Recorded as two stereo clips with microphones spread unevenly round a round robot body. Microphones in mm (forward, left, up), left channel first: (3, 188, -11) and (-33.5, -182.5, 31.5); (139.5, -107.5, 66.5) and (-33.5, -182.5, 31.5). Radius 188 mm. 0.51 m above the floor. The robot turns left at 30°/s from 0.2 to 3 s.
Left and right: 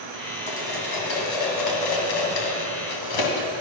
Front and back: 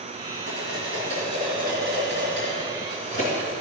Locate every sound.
0.5 s cutlery clinking: 155° left, 2 m; by 3.5 s 80° left, 2 m